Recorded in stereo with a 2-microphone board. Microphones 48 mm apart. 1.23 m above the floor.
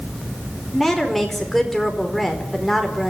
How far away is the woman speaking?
About 4.5 m.